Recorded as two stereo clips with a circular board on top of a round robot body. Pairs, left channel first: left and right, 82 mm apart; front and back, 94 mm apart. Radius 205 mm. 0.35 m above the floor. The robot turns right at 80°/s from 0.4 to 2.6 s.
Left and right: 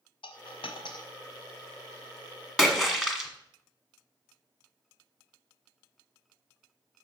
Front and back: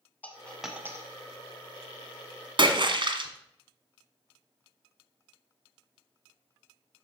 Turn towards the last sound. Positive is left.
turn(degrees=-175)